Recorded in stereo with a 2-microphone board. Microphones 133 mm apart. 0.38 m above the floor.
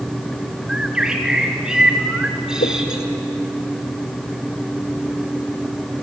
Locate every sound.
0.7 s a bird: 5° right (ahead or behind), 2 m
2.6 s a whoosh: 85° left, 2.5 m